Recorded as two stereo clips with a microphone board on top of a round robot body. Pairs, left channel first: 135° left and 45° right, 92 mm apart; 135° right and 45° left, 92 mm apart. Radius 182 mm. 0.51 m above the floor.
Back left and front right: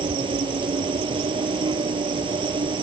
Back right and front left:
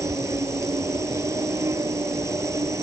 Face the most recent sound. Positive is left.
turn(degrees=-15)